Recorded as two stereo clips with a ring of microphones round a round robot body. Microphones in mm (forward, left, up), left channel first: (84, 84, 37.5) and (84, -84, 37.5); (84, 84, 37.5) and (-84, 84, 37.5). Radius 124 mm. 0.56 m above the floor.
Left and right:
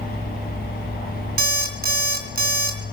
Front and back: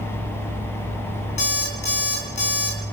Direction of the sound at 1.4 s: 65° right.